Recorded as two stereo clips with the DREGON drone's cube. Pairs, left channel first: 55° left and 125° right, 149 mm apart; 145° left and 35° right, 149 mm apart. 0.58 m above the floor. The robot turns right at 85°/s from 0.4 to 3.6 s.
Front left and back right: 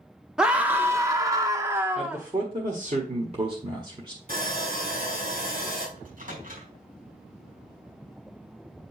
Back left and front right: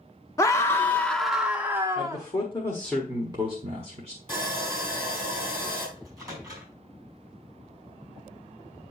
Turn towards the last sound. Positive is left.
turn(degrees=-100)